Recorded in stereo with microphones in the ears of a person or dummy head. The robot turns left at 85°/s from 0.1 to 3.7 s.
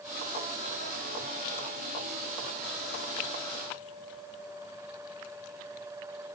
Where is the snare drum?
I don't hear a snare drum.